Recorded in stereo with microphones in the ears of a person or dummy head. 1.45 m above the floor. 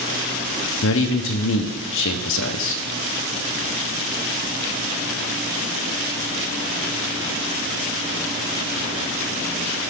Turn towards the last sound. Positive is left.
turn(degrees=60)  # may be behind; listen again after turning